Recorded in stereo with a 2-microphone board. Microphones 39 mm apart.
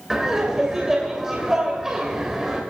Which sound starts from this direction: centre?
Laughter, at 0.1 s.